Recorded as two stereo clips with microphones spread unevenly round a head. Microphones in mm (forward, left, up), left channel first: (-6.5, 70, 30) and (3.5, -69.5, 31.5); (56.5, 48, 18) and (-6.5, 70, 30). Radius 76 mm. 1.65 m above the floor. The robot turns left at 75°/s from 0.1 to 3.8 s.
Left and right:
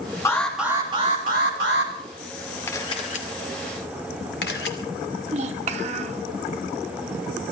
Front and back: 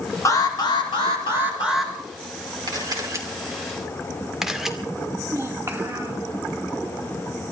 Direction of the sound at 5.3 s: 125° right.